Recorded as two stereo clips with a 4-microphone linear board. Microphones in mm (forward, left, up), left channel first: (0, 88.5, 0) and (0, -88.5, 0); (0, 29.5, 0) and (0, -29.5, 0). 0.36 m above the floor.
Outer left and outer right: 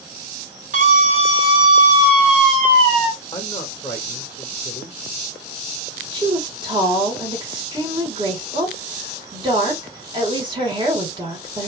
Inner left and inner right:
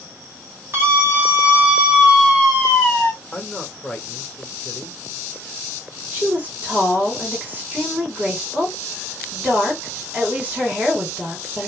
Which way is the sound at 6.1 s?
25° right (ahead or behind).